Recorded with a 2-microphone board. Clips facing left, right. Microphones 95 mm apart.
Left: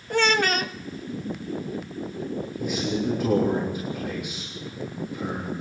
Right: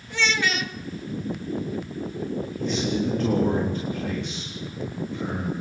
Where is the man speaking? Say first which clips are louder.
Right 1 dB; 10° left (ahead or behind), 3.5 m.